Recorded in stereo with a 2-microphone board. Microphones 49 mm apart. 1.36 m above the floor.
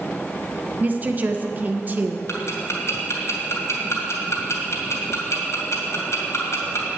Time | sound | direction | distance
0.8 | a woman speaking | 35° right (ahead or behind) | 1.2 m
2.3 | ticking | 70° left (ahead or behind) | 2.5 m